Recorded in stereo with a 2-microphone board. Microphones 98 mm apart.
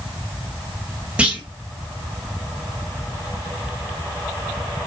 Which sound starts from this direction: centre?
A clunk, at 1.2 s.